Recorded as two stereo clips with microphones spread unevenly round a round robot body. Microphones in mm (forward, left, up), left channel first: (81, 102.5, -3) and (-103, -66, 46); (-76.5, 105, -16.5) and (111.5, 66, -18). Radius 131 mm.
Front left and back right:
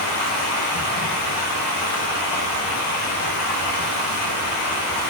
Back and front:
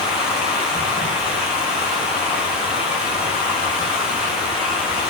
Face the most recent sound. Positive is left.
turn(degrees=75)